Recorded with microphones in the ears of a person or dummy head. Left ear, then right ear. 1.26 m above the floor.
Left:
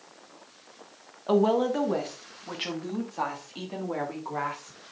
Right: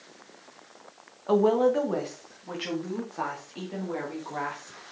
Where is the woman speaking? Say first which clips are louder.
Right 2 dB; 5° left (ahead or behind), 1.2 m; by 4.8 s 20° left (ahead or behind), 3 m.